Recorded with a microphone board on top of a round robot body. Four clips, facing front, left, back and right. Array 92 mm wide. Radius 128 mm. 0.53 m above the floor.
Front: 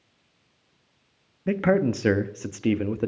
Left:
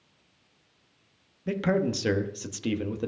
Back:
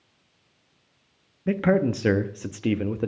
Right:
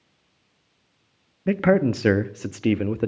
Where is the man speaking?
80° right, 0.8 m.